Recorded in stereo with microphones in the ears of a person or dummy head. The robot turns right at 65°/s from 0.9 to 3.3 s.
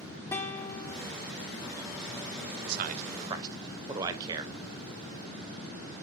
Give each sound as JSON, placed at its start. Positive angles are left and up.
{"t": 0.3, "sound": "a guitar", "side_deg": 15, "distance_m": 0.7}
{"t": 2.6, "sound": "a man speaking", "side_deg": -55, "distance_m": 0.8}